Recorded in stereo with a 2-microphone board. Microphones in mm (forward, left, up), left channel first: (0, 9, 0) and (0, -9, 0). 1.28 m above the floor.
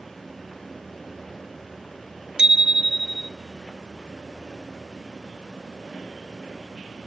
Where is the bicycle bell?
55° right (ahead or behind), 2 m.